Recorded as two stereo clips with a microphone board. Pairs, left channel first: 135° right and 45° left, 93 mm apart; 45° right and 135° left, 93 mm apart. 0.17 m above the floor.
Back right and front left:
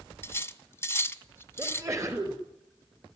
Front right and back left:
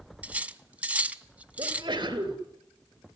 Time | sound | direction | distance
0.2 | cutlery clinking | 165° right | 0.6 m
1.6 | a sneeze | 100° left | 3 m